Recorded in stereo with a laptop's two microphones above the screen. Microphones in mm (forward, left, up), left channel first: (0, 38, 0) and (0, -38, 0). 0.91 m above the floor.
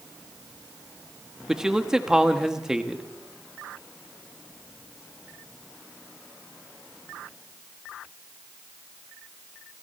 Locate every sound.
1.5 s a man speaking: 5° right (ahead or behind), 1.2 m